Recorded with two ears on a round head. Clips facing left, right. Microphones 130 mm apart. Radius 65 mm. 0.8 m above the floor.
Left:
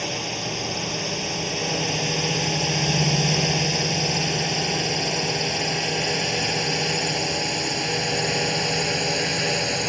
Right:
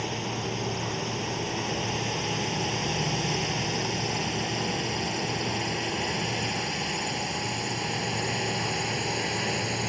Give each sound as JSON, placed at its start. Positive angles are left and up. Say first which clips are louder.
{"t": 0.0, "sound": "a drone", "louder": "left 2 dB", "side_deg": 65}